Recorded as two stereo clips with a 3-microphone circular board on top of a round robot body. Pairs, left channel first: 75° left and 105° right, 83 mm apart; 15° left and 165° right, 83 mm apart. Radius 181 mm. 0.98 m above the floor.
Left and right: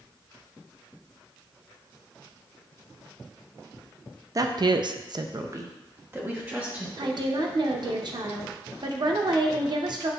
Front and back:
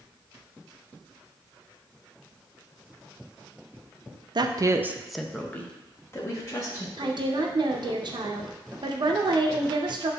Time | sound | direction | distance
4.3 | a woman speaking | 145° right | 0.5 m
7.0 | a woman speaking | 135° right | 0.6 m